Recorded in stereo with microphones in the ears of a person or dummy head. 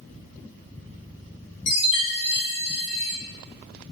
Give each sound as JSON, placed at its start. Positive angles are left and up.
{"t": 1.7, "sound": "a chime", "side_deg": 60, "distance_m": 2.5}